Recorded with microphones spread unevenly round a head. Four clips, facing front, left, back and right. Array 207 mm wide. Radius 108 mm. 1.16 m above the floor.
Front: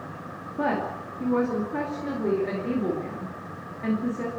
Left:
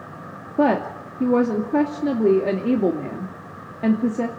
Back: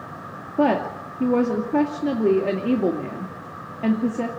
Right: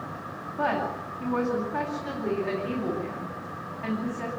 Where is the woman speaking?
120° left, 2.5 m.